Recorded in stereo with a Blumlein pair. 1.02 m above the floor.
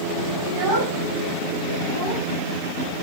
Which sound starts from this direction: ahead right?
A child speaking, at 0.5 s.